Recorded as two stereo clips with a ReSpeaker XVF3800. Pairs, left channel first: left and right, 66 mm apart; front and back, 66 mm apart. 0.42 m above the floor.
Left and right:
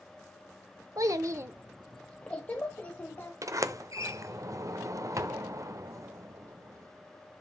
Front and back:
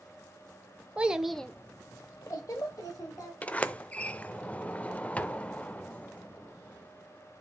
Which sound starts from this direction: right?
A child speaking, at 1.0 s.